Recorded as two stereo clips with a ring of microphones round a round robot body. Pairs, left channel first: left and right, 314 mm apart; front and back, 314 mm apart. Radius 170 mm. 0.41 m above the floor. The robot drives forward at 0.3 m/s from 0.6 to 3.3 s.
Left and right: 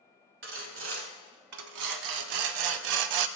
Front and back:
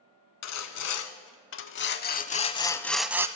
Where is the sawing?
35° right, 0.9 m; by 3.3 s 100° right, 0.5 m.